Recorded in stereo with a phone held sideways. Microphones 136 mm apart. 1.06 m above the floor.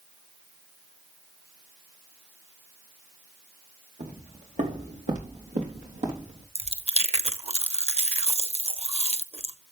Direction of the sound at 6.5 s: 50° right (ahead or behind).